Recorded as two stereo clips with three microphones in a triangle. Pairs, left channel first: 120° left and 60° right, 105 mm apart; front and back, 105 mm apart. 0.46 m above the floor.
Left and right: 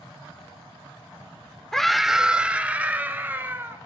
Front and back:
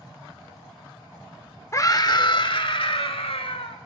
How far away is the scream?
About 0.9 m.